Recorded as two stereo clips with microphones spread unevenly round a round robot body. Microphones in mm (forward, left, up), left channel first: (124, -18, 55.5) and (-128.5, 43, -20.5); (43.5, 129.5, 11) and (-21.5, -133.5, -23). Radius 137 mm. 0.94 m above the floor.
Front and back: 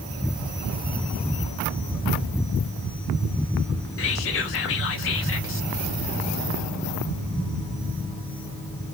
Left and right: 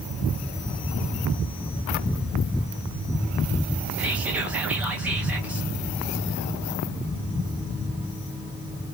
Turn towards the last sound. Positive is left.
turn(degrees=-35)